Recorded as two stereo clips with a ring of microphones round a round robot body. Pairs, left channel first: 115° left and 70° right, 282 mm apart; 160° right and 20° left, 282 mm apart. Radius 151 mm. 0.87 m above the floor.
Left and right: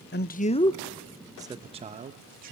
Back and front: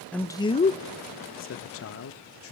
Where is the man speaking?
120° left, 0.8 m; by 2.5 s 125° right, 1.4 m.